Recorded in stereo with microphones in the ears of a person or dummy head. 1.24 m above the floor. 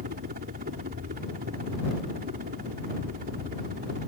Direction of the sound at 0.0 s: 45° right (ahead or behind).